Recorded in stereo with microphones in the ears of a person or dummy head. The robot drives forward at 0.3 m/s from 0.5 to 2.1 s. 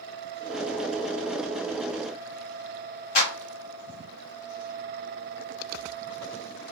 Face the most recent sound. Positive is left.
turn(degrees=40)  # may be behind; listen again after turning